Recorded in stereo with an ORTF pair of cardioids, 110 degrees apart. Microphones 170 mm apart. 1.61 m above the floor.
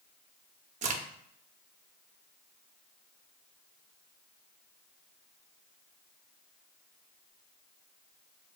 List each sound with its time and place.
0.8 s a crack: 45° right, 0.7 m